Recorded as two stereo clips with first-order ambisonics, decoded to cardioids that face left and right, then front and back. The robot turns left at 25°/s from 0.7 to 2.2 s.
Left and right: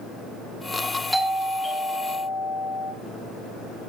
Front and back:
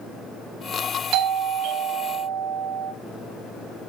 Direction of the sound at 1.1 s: 175° right.